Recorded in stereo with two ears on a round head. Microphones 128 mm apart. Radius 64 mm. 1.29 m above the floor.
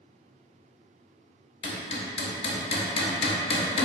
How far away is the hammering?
About 0.9 m.